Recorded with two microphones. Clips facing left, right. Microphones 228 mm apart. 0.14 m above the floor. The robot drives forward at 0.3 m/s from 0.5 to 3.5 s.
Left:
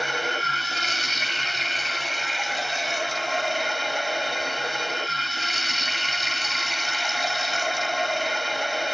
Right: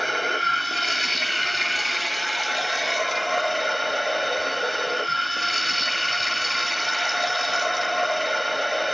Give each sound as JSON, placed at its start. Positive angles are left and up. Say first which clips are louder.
{"t": 0.0, "sound": "running water", "louder": "right 1 dB", "side_deg": -55, "distance_m": 0.9}